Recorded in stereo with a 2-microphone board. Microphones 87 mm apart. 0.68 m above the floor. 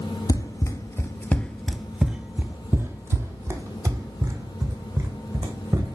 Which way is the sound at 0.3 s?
45° left (ahead or behind).